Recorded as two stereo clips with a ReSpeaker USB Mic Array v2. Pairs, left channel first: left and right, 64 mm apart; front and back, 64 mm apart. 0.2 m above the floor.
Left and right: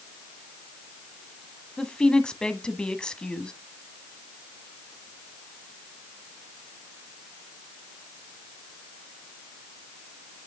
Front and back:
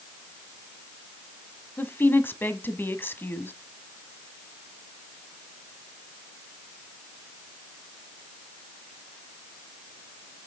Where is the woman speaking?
25° left, 1.1 m.